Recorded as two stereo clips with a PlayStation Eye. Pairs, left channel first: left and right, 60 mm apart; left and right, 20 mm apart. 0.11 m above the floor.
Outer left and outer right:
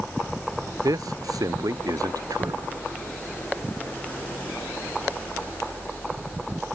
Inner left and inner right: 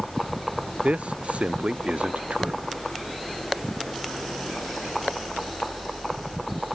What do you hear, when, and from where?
0.8 s a man speaking: 70° right (ahead or behind)